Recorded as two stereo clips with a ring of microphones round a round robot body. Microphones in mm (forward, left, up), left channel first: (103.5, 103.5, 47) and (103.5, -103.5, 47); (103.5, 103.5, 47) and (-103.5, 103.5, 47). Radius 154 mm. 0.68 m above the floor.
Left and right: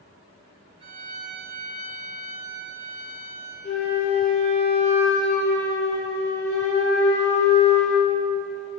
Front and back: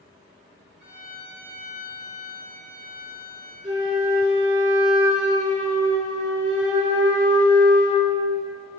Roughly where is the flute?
Behind.